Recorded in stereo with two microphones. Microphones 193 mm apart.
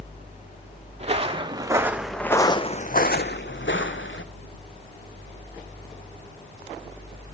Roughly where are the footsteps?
Right.